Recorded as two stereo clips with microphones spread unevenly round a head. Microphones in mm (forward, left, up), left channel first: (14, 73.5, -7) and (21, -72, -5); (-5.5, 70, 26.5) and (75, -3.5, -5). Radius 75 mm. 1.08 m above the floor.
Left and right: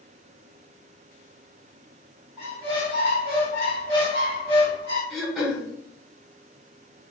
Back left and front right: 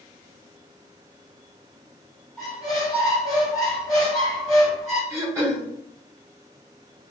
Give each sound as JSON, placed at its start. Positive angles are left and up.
{"t": 2.4, "sound": "a squeak", "azimuth_deg": -155, "distance_m": 1.7}
{"t": 5.1, "sound": "throat clearing", "azimuth_deg": 5, "distance_m": 0.8}